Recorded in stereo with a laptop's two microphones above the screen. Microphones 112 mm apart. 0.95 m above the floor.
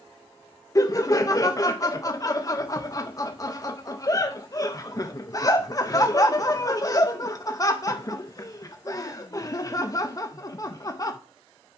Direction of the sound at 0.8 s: 30° left (ahead or behind).